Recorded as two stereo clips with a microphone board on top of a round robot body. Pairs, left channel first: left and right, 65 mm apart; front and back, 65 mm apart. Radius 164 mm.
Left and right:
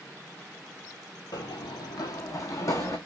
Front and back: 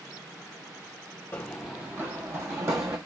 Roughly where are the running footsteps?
Left.